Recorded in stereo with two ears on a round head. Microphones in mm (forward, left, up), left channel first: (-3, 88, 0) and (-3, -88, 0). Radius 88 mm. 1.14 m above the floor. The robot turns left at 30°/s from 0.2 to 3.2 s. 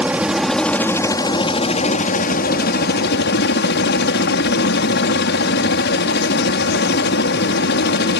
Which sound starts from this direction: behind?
A helicopter, at 0.0 s.